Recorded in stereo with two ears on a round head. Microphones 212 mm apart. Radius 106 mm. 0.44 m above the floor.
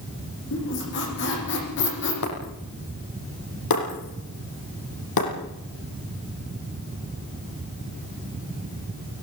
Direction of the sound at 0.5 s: 55° left (ahead or behind).